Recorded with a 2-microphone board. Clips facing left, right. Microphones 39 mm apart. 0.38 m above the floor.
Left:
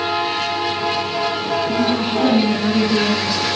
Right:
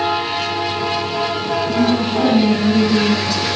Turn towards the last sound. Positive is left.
turn(degrees=10)  # may be behind; listen again after turning